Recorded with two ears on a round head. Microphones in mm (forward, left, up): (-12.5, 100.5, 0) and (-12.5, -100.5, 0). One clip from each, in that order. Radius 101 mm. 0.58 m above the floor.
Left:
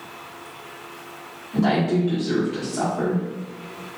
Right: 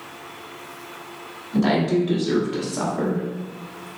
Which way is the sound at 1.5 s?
25° right (ahead or behind).